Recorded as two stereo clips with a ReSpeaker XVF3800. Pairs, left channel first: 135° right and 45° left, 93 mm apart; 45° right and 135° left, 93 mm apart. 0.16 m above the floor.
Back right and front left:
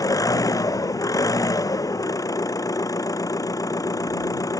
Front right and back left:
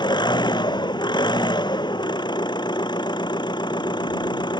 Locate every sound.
0.0 s an engine running: 85° right